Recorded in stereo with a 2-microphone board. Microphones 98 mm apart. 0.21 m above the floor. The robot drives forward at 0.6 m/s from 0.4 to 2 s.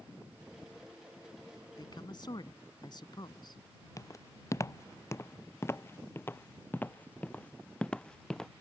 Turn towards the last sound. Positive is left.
turn(degrees=5)  # may be behind; listen again after turning